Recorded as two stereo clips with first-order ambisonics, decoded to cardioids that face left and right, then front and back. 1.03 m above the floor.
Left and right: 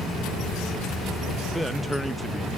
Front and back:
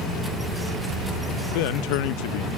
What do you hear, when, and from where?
1.6 s a man speaking: 5° right, 0.7 m